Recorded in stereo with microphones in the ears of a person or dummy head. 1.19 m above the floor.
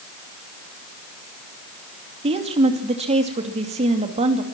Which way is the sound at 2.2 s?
30° right (ahead or behind).